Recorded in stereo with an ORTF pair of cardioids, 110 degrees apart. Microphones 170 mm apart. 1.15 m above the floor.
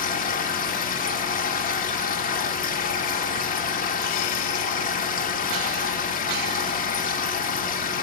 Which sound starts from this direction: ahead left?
A machine running, at 0.0 s.